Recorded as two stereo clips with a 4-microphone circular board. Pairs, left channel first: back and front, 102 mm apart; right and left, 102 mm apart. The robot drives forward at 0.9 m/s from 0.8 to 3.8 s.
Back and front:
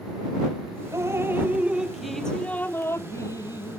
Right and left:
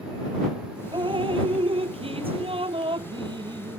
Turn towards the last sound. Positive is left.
turn(degrees=135)